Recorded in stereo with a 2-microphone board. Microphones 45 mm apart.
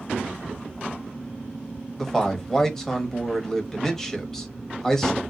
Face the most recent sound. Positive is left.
turn(degrees=10)  # may be behind; listen again after turning